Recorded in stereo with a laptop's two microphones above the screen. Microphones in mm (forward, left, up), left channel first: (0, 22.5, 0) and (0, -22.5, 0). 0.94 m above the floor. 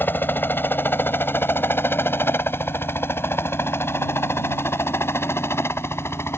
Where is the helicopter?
45° left (ahead or behind); by 6.4 s 65° left (ahead or behind).